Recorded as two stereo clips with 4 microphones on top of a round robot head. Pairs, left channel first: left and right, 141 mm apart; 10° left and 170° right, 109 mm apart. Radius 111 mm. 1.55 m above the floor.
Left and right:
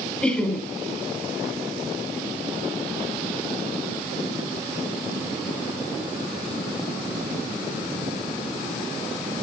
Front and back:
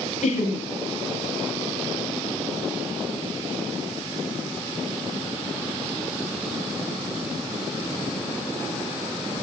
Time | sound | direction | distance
0.2 | laughter | 5° left | 2.5 m